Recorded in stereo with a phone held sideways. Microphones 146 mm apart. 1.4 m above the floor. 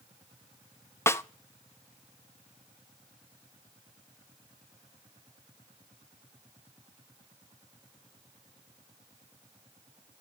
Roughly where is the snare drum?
Centre.